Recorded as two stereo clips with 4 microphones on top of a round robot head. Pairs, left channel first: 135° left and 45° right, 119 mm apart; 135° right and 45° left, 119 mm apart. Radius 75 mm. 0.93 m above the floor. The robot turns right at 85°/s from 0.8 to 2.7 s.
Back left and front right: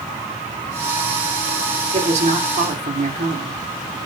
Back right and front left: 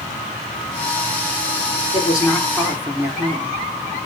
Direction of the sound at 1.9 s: 90° right.